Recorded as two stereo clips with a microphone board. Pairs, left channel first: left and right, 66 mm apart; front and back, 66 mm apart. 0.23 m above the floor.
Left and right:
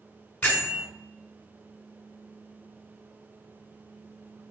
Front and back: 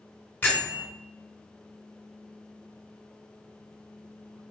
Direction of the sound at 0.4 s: 40° left.